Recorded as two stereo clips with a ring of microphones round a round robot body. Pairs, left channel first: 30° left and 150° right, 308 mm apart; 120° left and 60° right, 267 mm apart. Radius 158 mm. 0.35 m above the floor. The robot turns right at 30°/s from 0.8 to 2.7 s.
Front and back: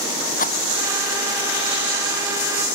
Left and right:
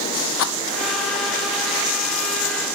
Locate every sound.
0.4 s a rattle: 95° left